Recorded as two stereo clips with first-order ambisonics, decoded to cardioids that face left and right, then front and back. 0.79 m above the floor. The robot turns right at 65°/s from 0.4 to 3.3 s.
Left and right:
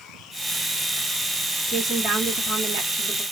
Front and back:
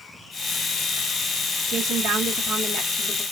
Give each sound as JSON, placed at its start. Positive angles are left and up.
{"t": 1.7, "sound": "a woman speaking", "azimuth_deg": 165, "distance_m": 1.4}